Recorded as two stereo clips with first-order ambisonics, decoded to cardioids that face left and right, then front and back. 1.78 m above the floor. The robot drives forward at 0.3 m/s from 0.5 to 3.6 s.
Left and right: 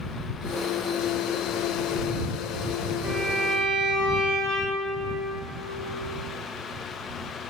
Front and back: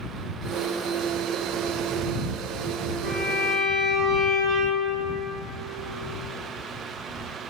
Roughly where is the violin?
Right.